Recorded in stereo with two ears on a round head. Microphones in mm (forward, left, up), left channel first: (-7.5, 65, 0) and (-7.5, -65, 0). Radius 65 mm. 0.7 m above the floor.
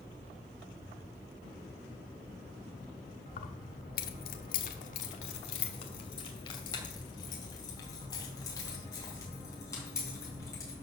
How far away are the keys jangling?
About 1.2 m.